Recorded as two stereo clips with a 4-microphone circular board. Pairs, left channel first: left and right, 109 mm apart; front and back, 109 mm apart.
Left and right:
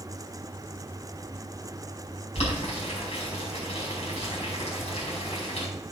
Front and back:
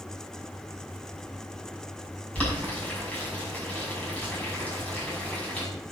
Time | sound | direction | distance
2.4 | boiling | 75° left | 5.5 m